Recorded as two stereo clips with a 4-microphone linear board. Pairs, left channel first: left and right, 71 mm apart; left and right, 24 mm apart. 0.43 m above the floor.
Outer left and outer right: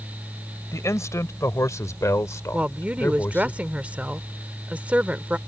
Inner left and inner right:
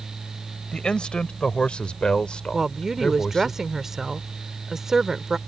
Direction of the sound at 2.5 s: 20° right (ahead or behind).